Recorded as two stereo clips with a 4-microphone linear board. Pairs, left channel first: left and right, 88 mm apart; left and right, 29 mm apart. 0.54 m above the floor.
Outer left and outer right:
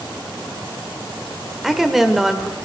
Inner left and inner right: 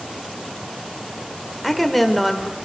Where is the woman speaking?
5° right (ahead or behind), 1.6 m.